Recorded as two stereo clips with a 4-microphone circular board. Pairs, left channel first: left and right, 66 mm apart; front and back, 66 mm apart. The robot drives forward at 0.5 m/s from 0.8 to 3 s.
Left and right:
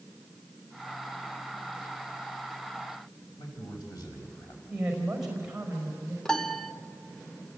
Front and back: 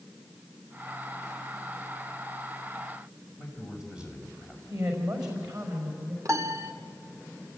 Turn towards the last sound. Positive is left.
turn(degrees=170)